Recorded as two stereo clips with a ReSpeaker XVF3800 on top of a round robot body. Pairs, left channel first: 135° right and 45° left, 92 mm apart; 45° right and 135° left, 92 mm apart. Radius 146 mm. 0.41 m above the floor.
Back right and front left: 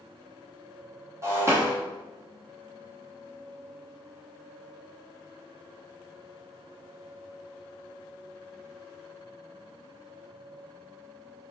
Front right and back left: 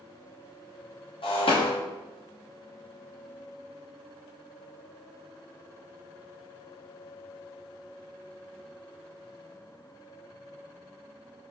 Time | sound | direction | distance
1.2 | breaking glass | 15° right | 0.9 m